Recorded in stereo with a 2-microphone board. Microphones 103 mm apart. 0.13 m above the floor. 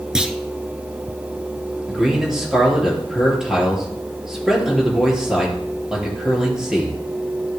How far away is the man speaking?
About 3 m.